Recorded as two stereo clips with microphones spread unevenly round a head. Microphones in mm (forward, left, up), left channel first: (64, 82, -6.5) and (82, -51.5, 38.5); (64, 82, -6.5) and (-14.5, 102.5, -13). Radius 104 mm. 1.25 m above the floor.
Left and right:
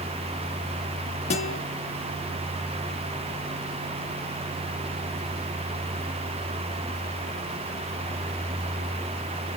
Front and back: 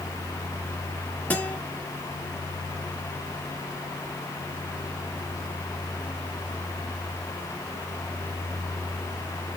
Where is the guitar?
55° left, 1.8 m.